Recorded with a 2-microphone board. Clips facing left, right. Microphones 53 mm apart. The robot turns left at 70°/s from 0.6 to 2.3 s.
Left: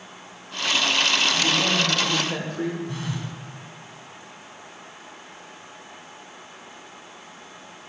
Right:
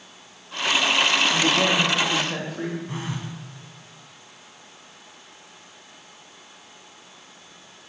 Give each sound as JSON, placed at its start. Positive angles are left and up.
{"t": 1.3, "sound": "a woman speaking", "azimuth_deg": -110, "distance_m": 2.5}
{"t": 2.9, "sound": "a phone buzzing", "side_deg": -25, "distance_m": 2.5}